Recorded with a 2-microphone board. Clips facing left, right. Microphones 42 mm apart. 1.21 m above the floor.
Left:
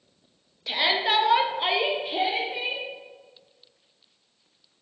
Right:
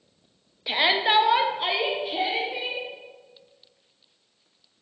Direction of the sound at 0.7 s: 15° right (ahead or behind).